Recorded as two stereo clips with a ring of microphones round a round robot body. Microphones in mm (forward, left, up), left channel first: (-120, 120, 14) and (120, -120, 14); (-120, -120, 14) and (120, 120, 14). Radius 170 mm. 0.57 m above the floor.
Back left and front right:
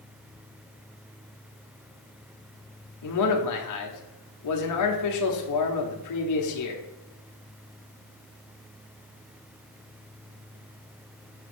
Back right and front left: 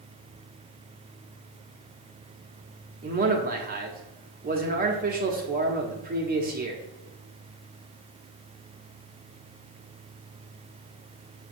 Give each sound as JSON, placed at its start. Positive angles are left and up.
{"t": 3.0, "sound": "a man speaking", "azimuth_deg": 105, "distance_m": 1.1}